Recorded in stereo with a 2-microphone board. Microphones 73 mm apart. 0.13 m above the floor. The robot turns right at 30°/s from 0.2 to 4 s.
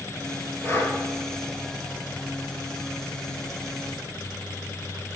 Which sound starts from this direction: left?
Breathing, at 0.6 s.